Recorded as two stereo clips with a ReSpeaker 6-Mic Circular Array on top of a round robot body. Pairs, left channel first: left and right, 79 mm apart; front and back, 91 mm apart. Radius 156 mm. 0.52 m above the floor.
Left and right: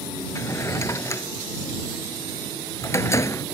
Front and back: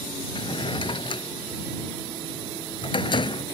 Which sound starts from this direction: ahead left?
A drawer, at 0.3 s.